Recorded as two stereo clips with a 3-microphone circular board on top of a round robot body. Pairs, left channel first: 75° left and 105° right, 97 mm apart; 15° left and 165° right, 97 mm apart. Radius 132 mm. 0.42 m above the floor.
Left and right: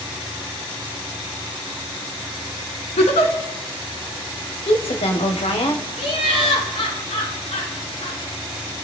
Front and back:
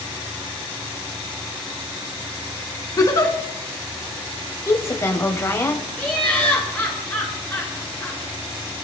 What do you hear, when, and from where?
3.0 s a giggle: 70° left, 2 m
4.7 s a woman speaking: 75° left, 2.5 m
6.0 s laughter: 85° left, 7.5 m